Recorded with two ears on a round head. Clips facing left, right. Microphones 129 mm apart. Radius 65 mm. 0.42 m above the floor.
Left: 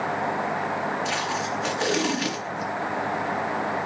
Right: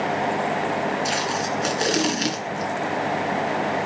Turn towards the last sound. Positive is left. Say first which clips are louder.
# right 3 dB
turn(degrees=-45)  # may be behind; listen again after turning